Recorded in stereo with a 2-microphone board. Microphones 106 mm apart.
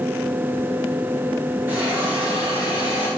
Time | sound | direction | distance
1.7 | a hiss | 20° right (ahead or behind) | 4 m